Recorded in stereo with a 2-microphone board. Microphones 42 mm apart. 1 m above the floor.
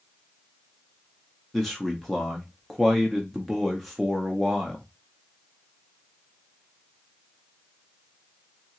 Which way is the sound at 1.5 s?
Centre (ahead or behind).